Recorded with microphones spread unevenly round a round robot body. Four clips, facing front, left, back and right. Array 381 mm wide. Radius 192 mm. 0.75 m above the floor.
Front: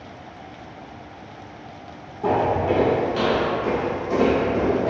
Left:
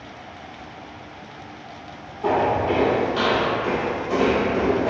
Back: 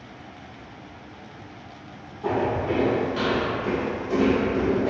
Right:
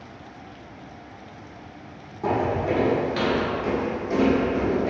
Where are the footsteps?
45° right, 0.9 m; by 4.9 s 150° right, 1.3 m.